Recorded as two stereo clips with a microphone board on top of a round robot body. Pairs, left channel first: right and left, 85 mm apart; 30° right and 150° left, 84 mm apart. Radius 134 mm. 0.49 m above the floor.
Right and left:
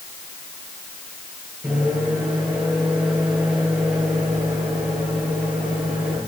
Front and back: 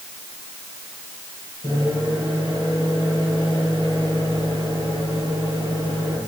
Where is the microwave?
10° left, 9 m.